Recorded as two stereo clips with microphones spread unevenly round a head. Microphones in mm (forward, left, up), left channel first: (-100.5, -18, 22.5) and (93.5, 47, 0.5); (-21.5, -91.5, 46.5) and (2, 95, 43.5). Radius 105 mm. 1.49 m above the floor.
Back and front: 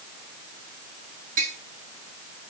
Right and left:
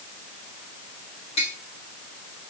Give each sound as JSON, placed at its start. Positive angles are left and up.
{"t": 1.4, "sound": "tapping", "azimuth_deg": -35, "distance_m": 8.5}